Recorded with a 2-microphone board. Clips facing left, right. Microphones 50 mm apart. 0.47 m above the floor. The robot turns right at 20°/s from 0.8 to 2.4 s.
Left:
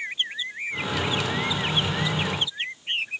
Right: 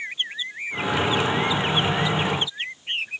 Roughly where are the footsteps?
No footsteps in this recording.